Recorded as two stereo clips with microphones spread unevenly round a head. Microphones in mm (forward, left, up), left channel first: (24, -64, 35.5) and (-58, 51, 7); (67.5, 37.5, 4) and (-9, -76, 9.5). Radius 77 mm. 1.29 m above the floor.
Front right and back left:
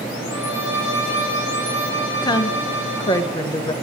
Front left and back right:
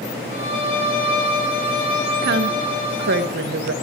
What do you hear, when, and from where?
0.3 s a violin: 45° left, 3.5 m
2.2 s a woman speaking: 120° right, 0.9 m